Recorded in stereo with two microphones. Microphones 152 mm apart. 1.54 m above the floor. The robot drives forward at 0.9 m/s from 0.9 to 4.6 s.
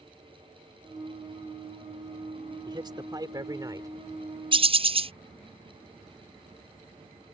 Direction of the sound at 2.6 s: 30° right (ahead or behind).